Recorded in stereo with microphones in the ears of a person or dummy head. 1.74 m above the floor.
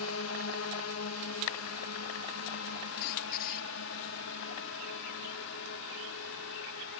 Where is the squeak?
50° left (ahead or behind).